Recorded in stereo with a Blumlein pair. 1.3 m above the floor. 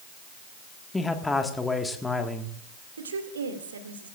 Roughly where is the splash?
I don't hear a splash.